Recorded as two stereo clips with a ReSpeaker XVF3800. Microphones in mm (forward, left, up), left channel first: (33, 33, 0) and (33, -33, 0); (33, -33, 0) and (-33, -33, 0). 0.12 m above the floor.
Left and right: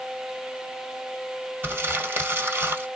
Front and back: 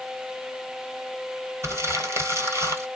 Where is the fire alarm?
No fire alarm in this recording.